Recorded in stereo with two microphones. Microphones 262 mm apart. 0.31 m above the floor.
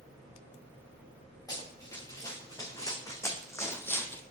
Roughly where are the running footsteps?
Centre.